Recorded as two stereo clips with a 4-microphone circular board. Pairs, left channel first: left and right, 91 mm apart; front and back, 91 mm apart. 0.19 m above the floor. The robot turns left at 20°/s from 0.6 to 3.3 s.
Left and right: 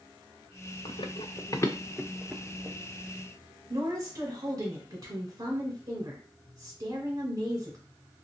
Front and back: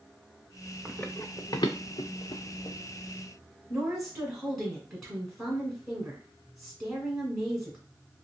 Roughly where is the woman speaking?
Right.